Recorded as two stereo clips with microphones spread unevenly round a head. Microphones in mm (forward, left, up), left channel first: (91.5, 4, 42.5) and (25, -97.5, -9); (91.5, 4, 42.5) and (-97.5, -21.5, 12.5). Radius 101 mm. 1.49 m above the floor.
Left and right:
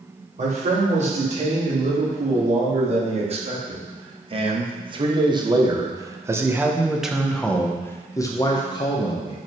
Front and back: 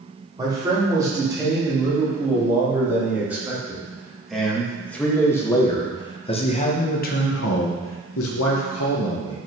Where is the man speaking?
100° right, 4.5 m; by 9.4 s 15° left, 1.8 m.